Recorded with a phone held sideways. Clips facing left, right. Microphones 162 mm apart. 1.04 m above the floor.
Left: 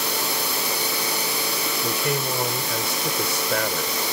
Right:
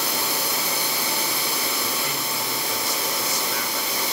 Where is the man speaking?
60° left (ahead or behind).